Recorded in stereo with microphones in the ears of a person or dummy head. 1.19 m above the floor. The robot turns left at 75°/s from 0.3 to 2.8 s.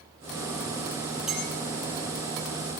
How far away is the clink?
About 5 m.